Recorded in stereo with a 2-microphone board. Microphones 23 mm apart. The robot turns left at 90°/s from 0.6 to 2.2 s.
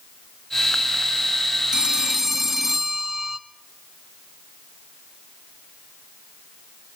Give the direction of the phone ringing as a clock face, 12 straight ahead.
4 o'clock.